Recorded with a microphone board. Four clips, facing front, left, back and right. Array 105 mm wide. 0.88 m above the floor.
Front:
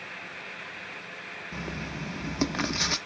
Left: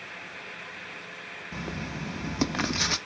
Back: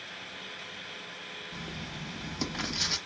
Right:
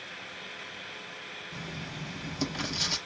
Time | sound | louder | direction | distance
1.5 | writing | left 6 dB, front 6 dB | 50° left | 0.5 m